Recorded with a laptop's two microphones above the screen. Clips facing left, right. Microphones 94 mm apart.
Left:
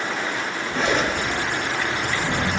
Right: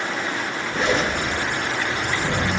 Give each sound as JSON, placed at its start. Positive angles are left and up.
{"t": 0.7, "sound": "a zipper", "side_deg": 75, "distance_m": 7.5}